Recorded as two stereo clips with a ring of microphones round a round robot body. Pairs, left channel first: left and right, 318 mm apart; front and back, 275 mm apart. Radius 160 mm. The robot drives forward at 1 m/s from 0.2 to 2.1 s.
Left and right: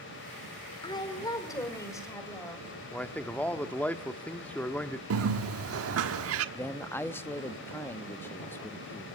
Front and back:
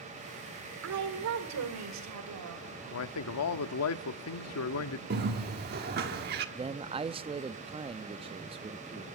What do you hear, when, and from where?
0.8 s a woman speaking: 165° left, 2.5 m; by 2.7 s 170° left, 3.5 m
2.9 s a man speaking: 5° left, 1.2 m
5.1 s a bird: 130° right, 1.2 m
6.5 s a man speaking: 160° left, 0.5 m